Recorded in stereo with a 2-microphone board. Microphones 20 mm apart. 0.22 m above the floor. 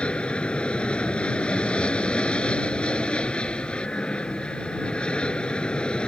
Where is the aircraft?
60° left (ahead or behind); by 6.1 s 50° left (ahead or behind).